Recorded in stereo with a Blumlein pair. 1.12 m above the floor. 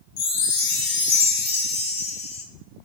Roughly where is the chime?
Ahead left.